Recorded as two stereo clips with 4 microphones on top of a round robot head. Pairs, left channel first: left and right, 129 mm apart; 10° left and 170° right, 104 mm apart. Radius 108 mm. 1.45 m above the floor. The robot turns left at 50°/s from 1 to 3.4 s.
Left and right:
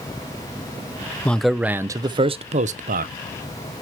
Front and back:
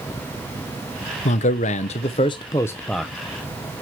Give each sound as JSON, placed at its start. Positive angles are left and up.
{"t": 1.2, "sound": "a man speaking", "azimuth_deg": 10, "distance_m": 0.6}